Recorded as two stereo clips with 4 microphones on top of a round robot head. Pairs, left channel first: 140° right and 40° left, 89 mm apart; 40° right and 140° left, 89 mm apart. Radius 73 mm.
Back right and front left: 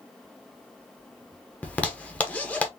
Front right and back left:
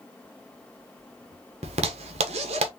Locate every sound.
1.6 s a zipper: 145° left, 1.0 m